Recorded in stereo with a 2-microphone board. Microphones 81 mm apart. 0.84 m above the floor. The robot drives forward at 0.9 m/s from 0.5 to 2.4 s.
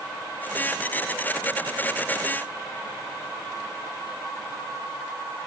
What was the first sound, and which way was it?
Only background noise.